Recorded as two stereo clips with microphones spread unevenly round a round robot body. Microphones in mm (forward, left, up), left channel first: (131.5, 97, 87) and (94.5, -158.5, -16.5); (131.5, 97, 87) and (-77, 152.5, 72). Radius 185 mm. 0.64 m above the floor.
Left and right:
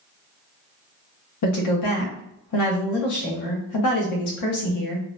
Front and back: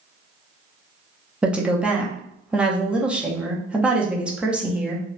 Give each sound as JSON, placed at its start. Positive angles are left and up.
{"t": 1.4, "sound": "a woman speaking", "azimuth_deg": 85, "distance_m": 0.9}